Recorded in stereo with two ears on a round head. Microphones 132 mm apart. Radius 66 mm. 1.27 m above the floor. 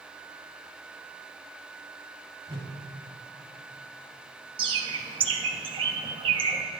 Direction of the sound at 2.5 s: 30° right (ahead or behind).